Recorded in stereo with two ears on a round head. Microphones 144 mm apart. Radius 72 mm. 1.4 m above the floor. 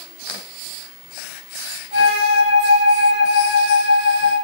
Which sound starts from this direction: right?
A flute, at 1.9 s.